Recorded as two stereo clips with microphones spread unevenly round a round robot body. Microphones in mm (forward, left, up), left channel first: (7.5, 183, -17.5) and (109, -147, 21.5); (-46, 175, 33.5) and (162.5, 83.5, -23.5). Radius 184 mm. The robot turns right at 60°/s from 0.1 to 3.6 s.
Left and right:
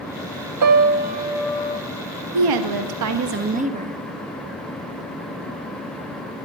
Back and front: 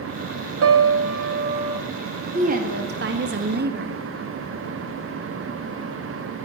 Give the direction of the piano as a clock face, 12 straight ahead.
1 o'clock.